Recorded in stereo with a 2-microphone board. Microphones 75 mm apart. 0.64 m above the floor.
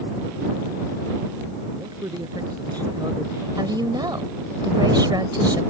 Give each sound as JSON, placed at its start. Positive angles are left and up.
{"t": 1.7, "sound": "a man speaking", "side_deg": -60}
{"t": 3.6, "sound": "a woman speaking", "side_deg": -70}